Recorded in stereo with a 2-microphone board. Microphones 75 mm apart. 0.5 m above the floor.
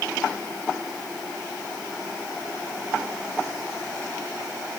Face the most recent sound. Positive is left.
No sound to turn to.